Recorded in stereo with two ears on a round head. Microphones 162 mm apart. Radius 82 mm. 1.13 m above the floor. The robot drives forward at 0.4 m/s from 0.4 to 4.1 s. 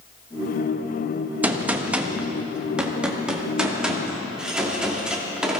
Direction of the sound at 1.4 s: 10° right (ahead or behind).